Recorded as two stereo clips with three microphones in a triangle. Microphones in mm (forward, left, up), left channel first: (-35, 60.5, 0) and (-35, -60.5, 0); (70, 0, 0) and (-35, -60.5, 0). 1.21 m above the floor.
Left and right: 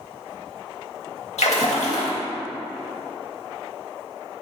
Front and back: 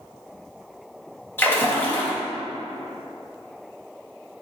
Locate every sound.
1.4 s a splash: 100° left, 1.8 m